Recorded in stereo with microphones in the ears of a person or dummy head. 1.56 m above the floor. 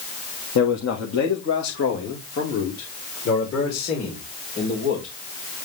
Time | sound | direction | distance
0.6 | a man speaking | 75° left (ahead or behind) | 1.6 m